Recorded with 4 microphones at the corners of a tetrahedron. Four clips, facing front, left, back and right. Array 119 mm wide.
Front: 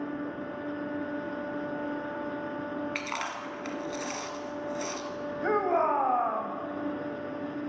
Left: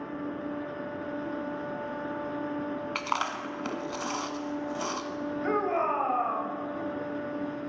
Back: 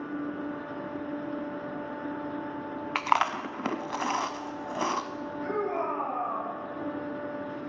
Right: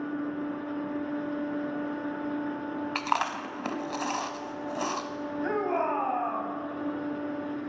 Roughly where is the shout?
Ahead.